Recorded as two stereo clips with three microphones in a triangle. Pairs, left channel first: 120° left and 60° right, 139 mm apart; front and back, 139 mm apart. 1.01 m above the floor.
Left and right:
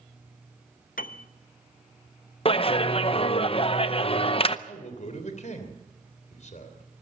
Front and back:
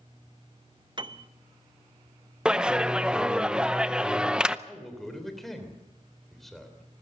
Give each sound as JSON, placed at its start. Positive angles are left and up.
{"t": 1.0, "sound": "a piano", "azimuth_deg": 125, "distance_m": 0.8}
{"t": 2.5, "sound": "a clap", "azimuth_deg": 100, "distance_m": 0.7}
{"t": 4.7, "sound": "a man speaking", "azimuth_deg": 90, "distance_m": 3.0}